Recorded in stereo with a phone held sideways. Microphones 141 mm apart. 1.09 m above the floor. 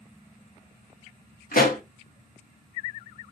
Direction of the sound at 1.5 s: 80° left.